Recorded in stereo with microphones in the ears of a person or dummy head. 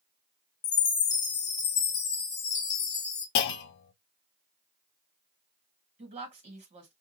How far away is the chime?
About 1.5 m.